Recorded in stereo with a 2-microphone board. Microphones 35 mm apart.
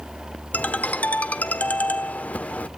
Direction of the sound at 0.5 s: 55° left (ahead or behind).